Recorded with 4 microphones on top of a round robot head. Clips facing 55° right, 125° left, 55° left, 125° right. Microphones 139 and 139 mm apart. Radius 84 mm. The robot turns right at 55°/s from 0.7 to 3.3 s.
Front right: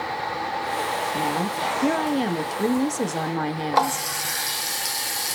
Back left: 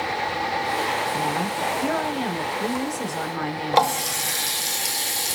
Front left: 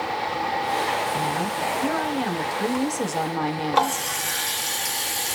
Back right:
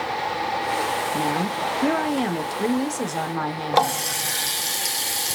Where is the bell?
I don't hear a bell.